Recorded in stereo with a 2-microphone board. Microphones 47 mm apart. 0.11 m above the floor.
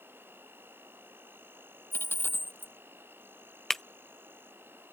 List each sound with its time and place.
0.0 s an insect: 55° right (ahead or behind)
1.9 s a dropped coin: 60° left (ahead or behind)
3.7 s breaking glass: 5° left (ahead or behind)